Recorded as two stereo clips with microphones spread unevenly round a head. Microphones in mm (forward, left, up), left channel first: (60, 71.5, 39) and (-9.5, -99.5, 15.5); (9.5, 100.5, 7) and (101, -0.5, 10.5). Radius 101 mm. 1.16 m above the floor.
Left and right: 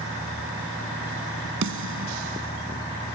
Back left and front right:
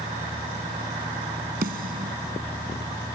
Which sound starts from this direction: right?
A snare drum, at 1.6 s.